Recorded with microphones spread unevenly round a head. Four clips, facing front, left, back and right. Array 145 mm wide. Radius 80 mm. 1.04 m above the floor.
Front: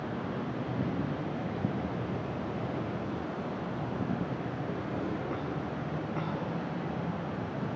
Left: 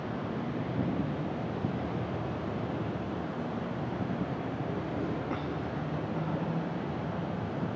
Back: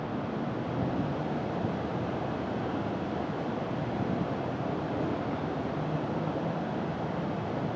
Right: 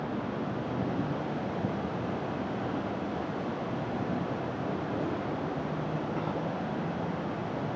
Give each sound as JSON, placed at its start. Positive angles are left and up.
{"t": 0.0, "sound": "an insect", "azimuth_deg": -95, "distance_m": 2.0}